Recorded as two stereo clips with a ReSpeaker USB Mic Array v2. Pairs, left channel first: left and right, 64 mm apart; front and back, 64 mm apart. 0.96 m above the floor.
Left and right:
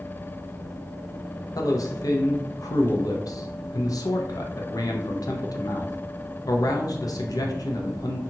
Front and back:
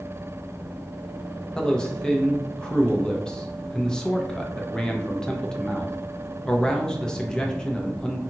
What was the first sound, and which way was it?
A man speaking, 75° left.